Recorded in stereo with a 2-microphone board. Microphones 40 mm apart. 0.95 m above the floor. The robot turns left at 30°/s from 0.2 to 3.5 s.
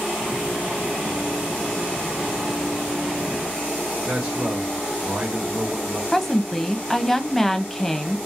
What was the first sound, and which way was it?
A man speaking, 30° right (ahead or behind).